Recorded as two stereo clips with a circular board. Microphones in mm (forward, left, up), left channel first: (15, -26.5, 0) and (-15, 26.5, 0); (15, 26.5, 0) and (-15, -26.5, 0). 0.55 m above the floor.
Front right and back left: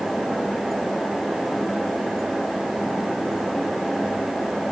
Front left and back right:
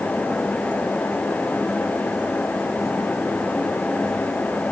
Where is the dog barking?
No dog barking in this recording.